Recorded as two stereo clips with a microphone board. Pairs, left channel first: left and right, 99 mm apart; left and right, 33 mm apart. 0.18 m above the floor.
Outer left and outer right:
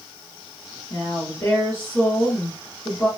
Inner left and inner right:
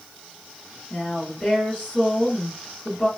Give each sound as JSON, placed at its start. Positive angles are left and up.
{"t": 0.9, "sound": "a woman speaking", "side_deg": 25, "distance_m": 1.6}